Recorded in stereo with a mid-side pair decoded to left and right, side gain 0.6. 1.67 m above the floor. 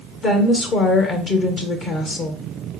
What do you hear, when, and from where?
0.2 s a woman speaking: 50° left, 0.9 m